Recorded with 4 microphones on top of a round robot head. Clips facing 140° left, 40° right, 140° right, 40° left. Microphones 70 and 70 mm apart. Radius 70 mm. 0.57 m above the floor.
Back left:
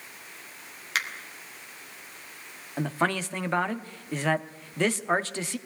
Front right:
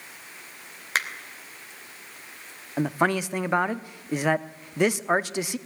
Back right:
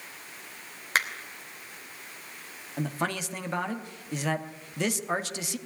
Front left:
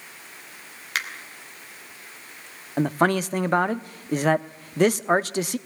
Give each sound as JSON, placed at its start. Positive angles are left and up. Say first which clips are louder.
{"t": 0.9, "sound": "a finger snap", "louder": "front right 3 dB, back right 2 dB", "azimuth_deg": -90, "distance_m": 2.5}
{"t": 2.8, "sound": "a man speaking", "louder": "front right 3 dB, front left 10 dB", "azimuth_deg": 35, "distance_m": 1.0}